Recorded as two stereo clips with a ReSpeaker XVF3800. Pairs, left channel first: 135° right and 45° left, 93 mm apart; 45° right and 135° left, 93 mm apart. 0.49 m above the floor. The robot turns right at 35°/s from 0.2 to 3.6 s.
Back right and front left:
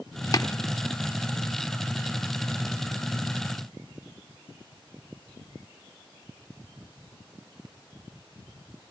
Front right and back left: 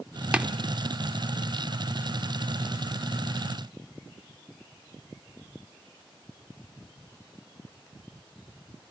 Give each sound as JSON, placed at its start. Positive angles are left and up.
{"t": 0.3, "sound": "tapping", "azimuth_deg": -155, "distance_m": 0.6}